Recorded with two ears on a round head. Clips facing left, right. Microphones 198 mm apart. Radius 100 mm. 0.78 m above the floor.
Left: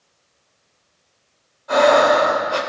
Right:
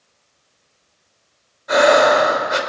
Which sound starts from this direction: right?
Breathing, at 1.7 s.